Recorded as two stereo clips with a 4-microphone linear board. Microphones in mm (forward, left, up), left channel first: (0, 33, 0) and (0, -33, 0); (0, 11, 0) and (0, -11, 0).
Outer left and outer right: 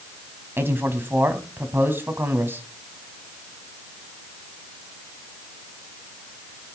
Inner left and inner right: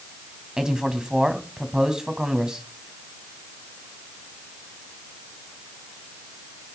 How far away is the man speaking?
About 3 m.